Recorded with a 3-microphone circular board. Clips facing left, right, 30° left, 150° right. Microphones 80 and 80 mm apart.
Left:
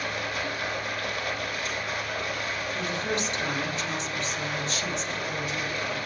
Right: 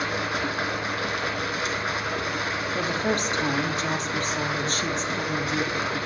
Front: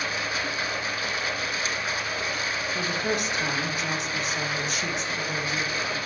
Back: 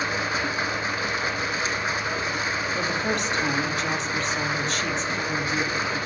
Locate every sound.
0.0 s running water: 90° right, 3 m
2.8 s a woman speaking: 50° right, 3 m